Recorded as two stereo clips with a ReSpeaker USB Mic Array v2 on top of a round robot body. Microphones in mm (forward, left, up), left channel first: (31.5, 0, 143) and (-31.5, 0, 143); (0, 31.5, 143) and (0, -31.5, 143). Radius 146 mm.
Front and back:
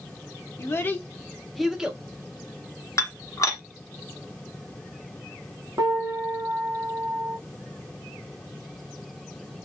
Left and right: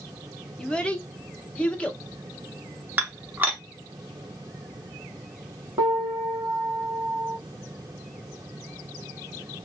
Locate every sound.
0.6 s a child speaking: 20° left, 1.0 m; by 2.0 s 140° left, 0.8 m
3.0 s dishes clattering: 30° right, 1.0 m
5.8 s a piano: 130° right, 0.7 m